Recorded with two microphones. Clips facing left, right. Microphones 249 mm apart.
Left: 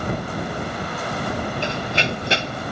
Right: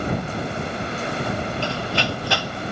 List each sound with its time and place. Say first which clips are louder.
1.6 s running footsteps: even; 20° left (ahead or behind); by 2.6 s 25° left (ahead or behind)